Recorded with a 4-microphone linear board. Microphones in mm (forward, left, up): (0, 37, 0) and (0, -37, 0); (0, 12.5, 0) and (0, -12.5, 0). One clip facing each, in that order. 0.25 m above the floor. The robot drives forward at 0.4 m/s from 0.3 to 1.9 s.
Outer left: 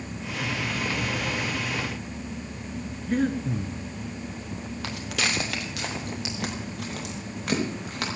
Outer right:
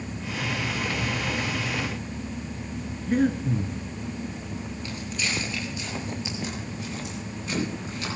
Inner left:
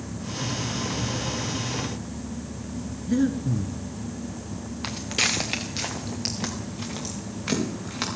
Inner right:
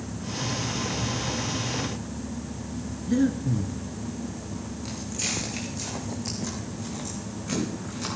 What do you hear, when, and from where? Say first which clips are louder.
3.1 s breathing: outer right 2 dB, even; 5° right (ahead or behind), 1.3 m
4.8 s footsteps: outer left 4 dB, inner left 8 dB; 85° left, 3 m; by 8.1 s 70° left (ahead or behind), 7.5 m